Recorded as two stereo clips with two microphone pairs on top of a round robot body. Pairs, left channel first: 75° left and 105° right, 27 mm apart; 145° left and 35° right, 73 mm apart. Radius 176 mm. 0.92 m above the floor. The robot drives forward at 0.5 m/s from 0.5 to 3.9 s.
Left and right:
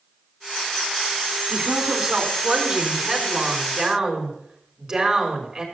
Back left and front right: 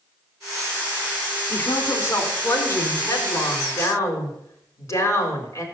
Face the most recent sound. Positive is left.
turn(degrees=-170)